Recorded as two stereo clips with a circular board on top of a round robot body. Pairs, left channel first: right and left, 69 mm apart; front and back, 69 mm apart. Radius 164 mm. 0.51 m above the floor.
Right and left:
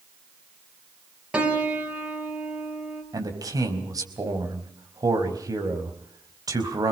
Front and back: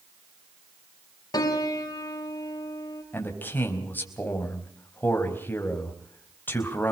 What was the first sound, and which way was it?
A piano, 15° left.